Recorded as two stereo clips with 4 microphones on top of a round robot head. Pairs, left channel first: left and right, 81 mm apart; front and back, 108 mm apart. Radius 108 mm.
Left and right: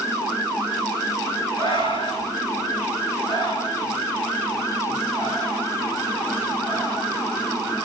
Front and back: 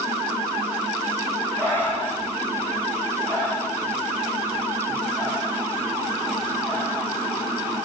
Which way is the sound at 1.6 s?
70° left.